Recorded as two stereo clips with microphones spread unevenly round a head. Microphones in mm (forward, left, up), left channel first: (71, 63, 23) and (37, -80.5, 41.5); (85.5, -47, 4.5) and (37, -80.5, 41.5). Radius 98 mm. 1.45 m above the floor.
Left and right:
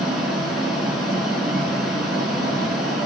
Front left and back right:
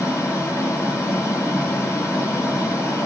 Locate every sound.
0.0 s running water: 20° right, 4.5 m